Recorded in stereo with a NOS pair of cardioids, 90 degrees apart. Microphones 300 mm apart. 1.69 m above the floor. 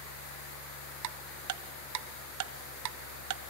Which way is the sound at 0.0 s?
55° left.